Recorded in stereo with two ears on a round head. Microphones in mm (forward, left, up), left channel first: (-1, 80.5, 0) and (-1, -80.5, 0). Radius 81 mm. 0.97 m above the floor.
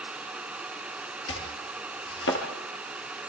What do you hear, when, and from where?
1.3 s chopping: 70° left (ahead or behind), 4 m